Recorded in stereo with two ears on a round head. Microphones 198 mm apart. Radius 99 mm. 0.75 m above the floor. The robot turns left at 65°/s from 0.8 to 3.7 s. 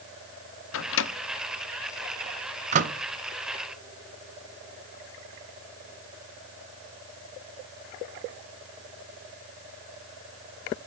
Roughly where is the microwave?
Left.